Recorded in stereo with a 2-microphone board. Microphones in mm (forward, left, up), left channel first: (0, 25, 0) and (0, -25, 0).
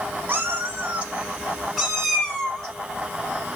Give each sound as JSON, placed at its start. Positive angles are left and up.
{"t": 0.3, "sound": "a cat meowing", "side_deg": -35, "distance_m": 1.1}